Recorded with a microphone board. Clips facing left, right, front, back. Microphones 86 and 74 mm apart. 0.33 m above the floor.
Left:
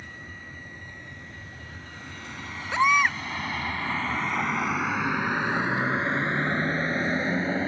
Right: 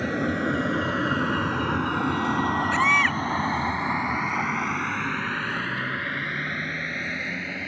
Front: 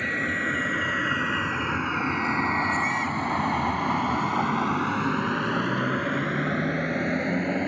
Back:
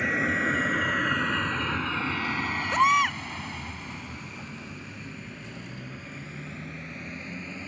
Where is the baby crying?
165° left.